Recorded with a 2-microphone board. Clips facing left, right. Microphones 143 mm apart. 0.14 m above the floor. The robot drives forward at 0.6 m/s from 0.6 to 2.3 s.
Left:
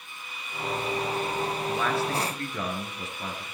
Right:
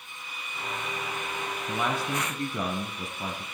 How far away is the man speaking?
About 1.8 m.